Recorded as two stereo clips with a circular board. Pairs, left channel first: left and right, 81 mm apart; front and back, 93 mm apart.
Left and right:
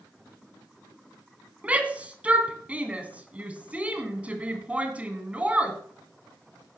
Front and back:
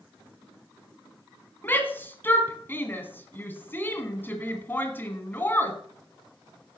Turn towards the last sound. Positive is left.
turn(degrees=-40)